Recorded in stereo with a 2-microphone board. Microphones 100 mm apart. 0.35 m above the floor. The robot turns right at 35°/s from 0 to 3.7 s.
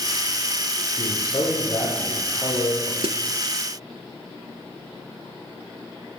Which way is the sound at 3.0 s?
80° right.